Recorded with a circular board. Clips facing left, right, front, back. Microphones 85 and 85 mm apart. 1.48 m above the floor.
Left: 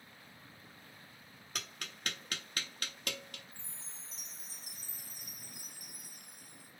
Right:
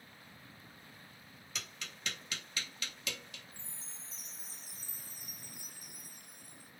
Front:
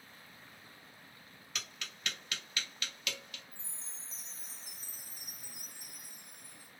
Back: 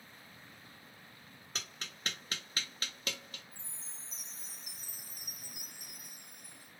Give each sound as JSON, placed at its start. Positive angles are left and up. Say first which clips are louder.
{"t": 1.6, "sound": "tapping", "louder": "left 2 dB, even", "azimuth_deg": 130, "distance_m": 0.6}
{"t": 3.5, "sound": "a chime", "louder": "even, even", "azimuth_deg": 165, "distance_m": 0.5}